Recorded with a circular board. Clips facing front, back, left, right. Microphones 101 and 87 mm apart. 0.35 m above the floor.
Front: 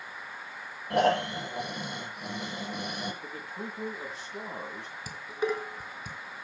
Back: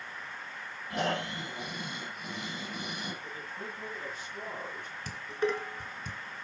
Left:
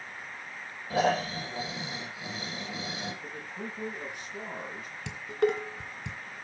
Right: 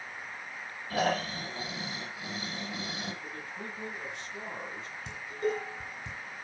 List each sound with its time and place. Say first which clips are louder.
0.9 s snoring: front 8 dB, left 3 dB; 20° left, 7 m
3.2 s a man speaking: front 2 dB, left 2 dB; 15° left, 5.5 m
5.1 s dishes clattering: even, left 5 dB; 80° left, 2.5 m